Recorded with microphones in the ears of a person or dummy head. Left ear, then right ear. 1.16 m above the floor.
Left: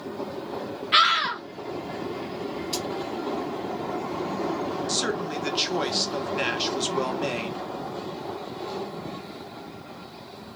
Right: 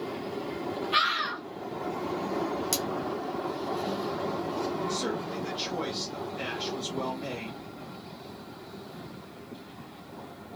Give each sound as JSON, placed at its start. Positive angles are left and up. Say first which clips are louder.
{"t": 0.9, "sound": "a scream", "louder": "left 7 dB", "side_deg": 45, "distance_m": 1.0}
{"t": 2.7, "sound": "cutlery clinking", "louder": "left 2 dB", "side_deg": -55, "distance_m": 0.9}
{"t": 4.9, "sound": "a man speaking", "louder": "left 5 dB", "side_deg": 50, "distance_m": 0.9}